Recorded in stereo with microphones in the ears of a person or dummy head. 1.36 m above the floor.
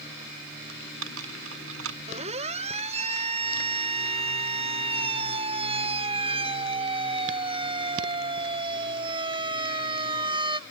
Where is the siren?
35° right (ahead or behind); by 10.6 s 25° right (ahead or behind).